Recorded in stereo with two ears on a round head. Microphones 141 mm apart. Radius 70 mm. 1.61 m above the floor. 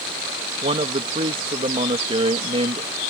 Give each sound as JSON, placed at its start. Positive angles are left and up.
{"t": 0.6, "sound": "a man speaking", "side_deg": -35}